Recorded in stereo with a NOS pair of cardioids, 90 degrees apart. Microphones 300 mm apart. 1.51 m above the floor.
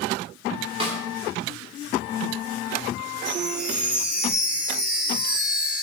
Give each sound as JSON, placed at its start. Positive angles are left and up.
{"t": 0.8, "sound": "a snare drum", "azimuth_deg": -20, "distance_m": 4.0}
{"t": 3.2, "sound": "a chime", "azimuth_deg": -5, "distance_m": 3.0}